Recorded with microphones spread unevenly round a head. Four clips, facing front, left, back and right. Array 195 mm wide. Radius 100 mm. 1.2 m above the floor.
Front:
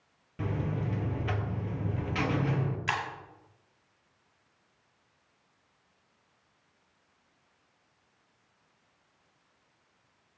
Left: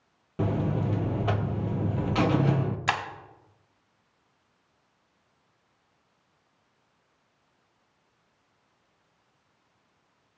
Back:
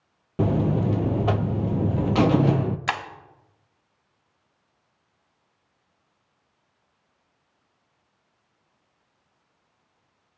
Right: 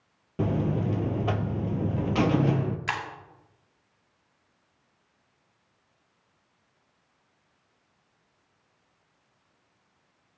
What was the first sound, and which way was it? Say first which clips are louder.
A buzzer: right 1 dB, back 11 dB; straight behind.